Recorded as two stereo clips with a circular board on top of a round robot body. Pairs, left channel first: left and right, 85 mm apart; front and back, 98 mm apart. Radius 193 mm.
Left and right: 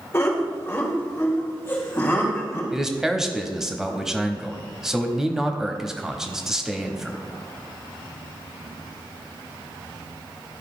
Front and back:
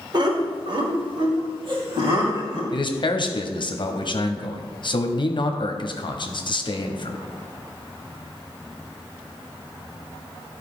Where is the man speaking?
5° right, 1.1 m.